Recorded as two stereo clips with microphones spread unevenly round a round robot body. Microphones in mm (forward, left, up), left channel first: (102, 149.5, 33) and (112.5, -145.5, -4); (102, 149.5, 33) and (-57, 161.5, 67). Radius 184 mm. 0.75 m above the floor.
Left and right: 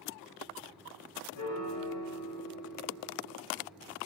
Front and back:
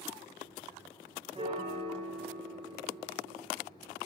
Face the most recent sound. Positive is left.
turn(degrees=115)